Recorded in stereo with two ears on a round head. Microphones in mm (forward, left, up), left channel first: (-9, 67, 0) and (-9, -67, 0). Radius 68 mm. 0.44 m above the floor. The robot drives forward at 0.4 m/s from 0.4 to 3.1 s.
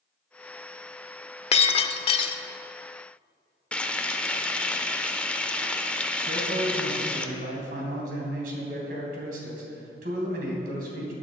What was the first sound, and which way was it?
Breaking glass, 40° left (ahead or behind).